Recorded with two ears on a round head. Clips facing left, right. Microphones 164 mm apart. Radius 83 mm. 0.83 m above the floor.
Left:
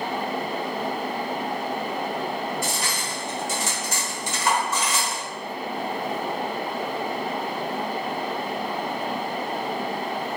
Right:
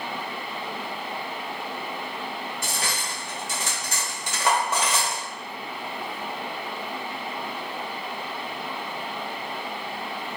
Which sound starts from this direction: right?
Cutlery clinking, at 2.6 s.